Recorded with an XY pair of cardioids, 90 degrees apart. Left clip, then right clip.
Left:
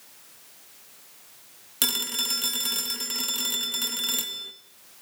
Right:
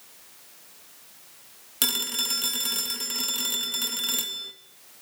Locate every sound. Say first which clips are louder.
1.8 s a phone ringing: even; 5° left, 2.0 m